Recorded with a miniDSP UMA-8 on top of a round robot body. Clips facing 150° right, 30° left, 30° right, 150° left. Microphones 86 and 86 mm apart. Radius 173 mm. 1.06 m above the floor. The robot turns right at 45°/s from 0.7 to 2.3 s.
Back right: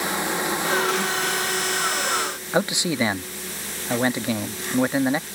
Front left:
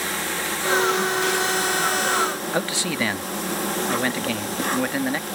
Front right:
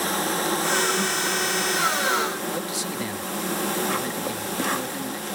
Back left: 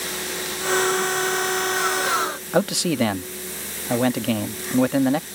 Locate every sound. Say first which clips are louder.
0.0 s an insect: back right 3 dB, front right 6 dB; 75° right; by 5.3 s 5° right
2.5 s a man speaking: back right 2 dB, back left 8 dB; 140° left